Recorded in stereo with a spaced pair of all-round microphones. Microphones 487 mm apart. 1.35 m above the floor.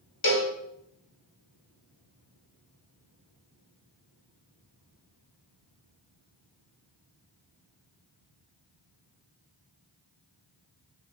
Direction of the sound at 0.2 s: 50° left (ahead or behind).